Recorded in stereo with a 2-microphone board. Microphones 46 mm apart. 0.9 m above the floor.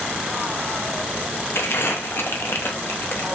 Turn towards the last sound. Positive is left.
turn(degrees=60)  # may be behind; listen again after turning